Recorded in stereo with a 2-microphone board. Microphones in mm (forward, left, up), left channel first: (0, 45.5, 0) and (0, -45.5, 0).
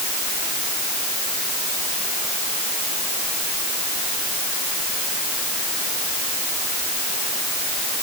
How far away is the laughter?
I don't hear laughter.